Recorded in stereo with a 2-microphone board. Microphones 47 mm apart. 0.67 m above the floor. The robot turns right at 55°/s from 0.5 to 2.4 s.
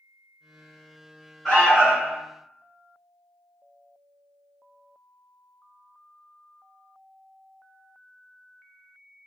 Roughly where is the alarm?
Behind.